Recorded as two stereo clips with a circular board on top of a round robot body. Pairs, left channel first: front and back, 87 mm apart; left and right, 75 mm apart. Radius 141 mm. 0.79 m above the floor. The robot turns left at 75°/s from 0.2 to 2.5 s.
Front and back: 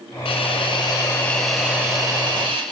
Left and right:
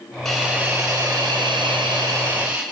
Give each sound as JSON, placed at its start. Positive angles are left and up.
{"t": 0.2, "sound": "a hiss", "azimuth_deg": 5, "distance_m": 4.0}